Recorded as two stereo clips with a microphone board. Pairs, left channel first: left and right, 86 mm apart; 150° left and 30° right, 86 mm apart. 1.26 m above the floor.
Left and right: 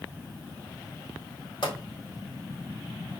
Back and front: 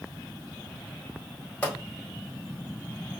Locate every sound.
1.6 s a pop: 75° left, 3.5 m